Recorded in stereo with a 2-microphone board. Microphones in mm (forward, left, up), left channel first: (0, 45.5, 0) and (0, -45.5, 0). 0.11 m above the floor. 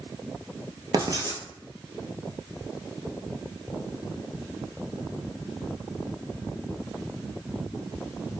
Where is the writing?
45° right (ahead or behind), 0.6 m.